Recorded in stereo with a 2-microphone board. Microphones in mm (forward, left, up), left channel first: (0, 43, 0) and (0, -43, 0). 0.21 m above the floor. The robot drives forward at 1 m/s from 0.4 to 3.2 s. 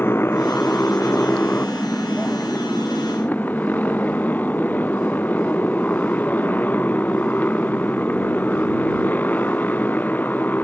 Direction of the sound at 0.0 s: 25° left (ahead or behind).